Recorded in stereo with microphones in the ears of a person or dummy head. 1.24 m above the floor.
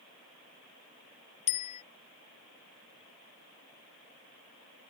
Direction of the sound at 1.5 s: 40° left (ahead or behind).